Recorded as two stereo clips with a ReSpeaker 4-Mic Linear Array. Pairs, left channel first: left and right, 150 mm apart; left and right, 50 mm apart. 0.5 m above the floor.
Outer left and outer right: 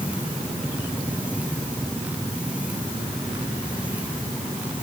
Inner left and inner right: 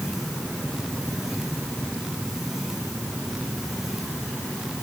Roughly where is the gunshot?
No gunshot in this recording.